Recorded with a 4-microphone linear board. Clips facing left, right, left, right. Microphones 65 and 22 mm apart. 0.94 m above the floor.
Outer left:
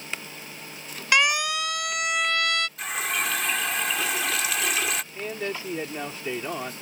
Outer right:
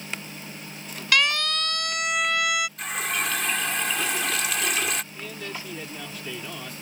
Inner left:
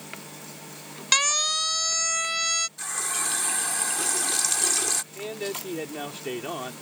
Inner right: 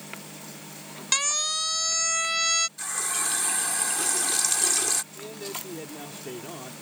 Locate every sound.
1.1 s a siren: 20° left (ahead or behind); by 2.7 s 10° right (ahead or behind)
2.8 s a running tap: centre (ahead or behind)
5.1 s a man speaking: 40° left (ahead or behind)